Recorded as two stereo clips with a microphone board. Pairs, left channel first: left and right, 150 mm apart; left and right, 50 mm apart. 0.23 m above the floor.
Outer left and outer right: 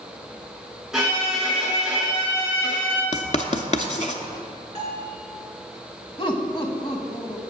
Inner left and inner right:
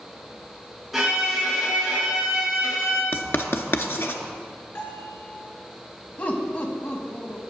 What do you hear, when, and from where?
0.9 s a violin: 5° right (ahead or behind), 3.5 m
3.1 s writing: 50° left (ahead or behind), 0.6 m
4.8 s a bell: 55° left (ahead or behind), 3 m
6.2 s laughter: 35° left (ahead or behind), 1.2 m